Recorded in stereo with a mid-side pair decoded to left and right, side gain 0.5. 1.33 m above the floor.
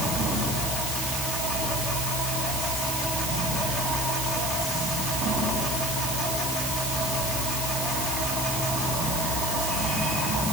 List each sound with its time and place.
Only background noise.